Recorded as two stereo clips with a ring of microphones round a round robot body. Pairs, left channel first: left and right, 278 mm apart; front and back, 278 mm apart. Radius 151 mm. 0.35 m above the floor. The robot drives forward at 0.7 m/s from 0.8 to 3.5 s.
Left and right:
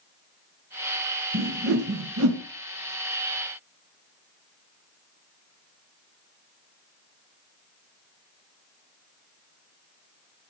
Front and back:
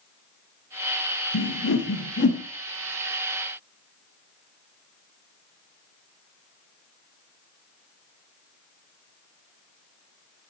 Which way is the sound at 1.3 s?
45° right.